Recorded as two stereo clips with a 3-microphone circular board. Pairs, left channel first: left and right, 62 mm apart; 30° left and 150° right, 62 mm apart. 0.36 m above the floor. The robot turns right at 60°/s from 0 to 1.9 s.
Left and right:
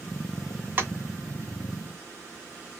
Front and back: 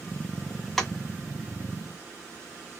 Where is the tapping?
55° right, 0.7 m; by 0.9 s 50° right, 0.7 m.